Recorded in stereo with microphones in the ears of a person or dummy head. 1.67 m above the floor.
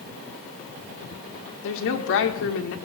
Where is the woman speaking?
65° left (ahead or behind), 1.5 m.